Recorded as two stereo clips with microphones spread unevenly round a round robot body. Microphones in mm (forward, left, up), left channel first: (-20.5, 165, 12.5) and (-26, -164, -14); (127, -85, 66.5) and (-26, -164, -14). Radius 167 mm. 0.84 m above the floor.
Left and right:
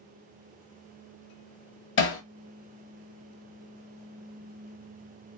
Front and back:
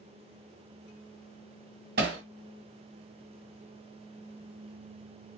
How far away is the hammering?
About 1.1 m.